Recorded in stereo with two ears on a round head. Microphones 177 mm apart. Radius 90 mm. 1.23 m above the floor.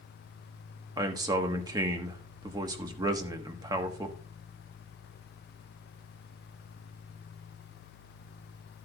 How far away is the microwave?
No microwave in this recording.